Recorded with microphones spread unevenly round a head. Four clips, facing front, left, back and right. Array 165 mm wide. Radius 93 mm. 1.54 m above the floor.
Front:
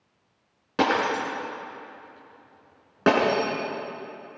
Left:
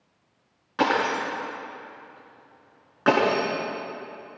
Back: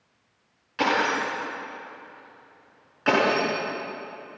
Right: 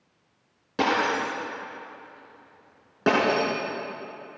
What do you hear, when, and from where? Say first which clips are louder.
0.8 s breaking glass: left 1 dB, front 1 dB; 30° right, 8.5 m